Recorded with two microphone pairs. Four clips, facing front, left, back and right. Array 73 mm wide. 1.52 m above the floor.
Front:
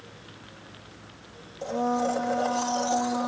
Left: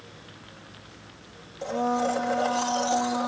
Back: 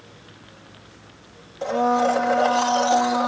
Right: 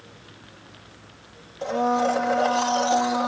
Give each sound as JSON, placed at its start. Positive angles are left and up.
{"t": 1.6, "sound": "a blender", "azimuth_deg": -160}